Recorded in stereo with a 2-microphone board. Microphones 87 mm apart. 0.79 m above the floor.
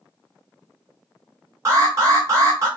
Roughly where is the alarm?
Right.